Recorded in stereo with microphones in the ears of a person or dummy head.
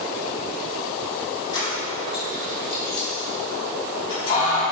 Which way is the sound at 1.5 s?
20° left (ahead or behind).